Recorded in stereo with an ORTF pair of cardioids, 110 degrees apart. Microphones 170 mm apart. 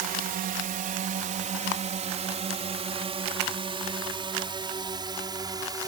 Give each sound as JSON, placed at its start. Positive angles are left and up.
{"t": 0.0, "sound": "a drone", "azimuth_deg": -65}